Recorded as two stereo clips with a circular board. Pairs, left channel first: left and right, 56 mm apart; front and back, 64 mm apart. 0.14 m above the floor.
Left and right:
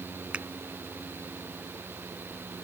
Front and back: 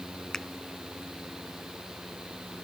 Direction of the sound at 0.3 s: 70° right.